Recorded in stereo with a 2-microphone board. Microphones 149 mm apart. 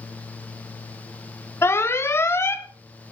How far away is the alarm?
About 1.1 m.